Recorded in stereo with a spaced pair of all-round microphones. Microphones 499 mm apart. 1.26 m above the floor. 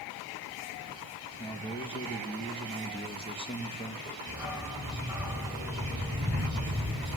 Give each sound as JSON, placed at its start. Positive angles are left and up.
{"t": 1.4, "sound": "a man speaking", "side_deg": 10, "distance_m": 1.7}
{"t": 4.3, "sound": "a dog barking", "side_deg": -5, "distance_m": 3.0}